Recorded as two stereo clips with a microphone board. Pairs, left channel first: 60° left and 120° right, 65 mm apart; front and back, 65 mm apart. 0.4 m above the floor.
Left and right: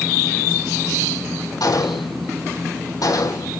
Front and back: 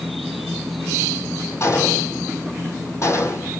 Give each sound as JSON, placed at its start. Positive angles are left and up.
{"t": 1.6, "sound": "a gunshot", "azimuth_deg": 45, "distance_m": 4.5}